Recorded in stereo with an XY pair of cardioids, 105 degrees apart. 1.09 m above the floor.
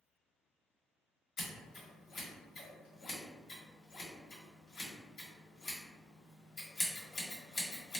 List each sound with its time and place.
1.4 s scissors: 65° left, 1.3 m